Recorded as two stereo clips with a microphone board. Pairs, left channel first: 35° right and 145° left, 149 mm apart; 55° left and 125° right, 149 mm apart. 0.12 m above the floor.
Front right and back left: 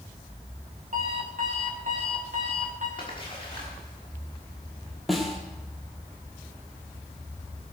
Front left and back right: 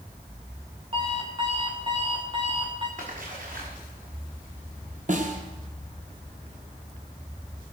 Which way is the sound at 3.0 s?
90° right.